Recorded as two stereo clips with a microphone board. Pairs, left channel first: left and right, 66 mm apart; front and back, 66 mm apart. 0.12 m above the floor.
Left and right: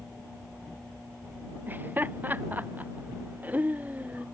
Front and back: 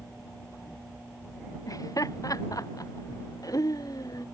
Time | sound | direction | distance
1.7 | laughter | 30° right | ?